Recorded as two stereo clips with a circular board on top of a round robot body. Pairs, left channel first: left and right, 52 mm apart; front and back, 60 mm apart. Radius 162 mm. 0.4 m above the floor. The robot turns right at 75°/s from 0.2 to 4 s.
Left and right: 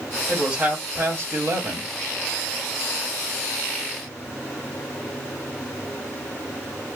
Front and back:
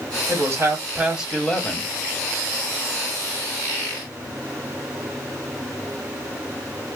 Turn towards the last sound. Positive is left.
turn(degrees=105)